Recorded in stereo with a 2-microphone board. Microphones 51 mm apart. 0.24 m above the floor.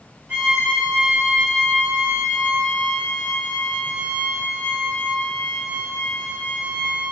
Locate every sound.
0.3 s a violin: 35° right (ahead or behind), 1.1 m